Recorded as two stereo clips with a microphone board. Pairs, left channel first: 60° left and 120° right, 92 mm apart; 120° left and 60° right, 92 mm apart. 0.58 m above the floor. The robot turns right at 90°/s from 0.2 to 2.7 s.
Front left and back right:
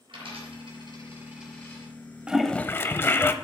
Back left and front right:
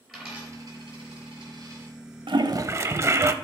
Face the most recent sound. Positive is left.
turn(degrees=-5)